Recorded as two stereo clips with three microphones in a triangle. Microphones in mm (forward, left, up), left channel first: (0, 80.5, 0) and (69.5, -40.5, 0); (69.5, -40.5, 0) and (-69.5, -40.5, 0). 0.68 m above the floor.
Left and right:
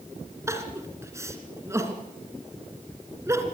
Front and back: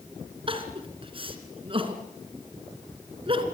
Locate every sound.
0.5 s crying: 130° right, 2.5 m